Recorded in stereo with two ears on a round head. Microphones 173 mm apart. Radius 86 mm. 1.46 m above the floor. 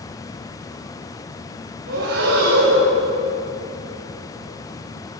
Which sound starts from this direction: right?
Breathing, at 1.9 s.